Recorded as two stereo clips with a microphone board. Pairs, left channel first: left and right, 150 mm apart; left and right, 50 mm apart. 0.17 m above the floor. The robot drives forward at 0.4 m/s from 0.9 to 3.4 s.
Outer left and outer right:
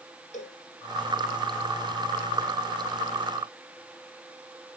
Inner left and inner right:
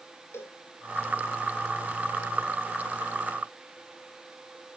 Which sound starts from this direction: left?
A cowbell, at 0.3 s.